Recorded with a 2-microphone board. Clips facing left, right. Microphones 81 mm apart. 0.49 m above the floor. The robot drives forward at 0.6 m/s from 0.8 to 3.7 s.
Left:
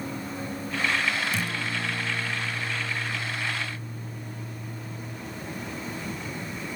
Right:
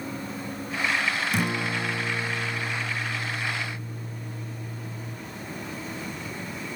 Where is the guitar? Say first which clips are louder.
Right 3 dB; 55° right (ahead or behind), 3.5 m; by 5.2 s 80° right, 3 m.